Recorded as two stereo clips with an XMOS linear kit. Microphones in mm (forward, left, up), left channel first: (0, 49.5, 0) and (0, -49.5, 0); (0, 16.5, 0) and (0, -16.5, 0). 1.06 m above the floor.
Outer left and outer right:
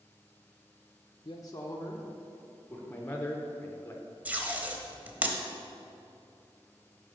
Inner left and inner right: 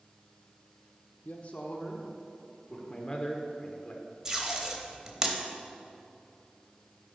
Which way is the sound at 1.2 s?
50° left (ahead or behind).